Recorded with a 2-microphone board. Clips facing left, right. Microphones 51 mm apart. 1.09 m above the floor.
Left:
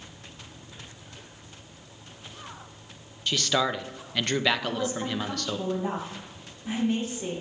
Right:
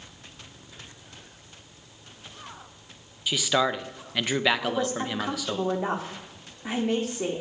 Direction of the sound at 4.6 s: 90° right.